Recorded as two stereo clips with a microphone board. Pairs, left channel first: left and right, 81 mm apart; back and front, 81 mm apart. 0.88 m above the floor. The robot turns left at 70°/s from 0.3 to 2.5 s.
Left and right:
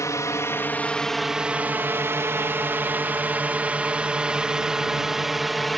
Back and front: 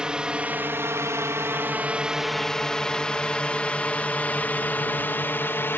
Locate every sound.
0.0 s a drone: 75° left; by 5.8 s straight behind